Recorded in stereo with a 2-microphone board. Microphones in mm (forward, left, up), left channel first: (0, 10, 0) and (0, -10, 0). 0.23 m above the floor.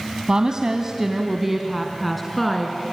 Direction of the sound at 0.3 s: 45° right (ahead or behind).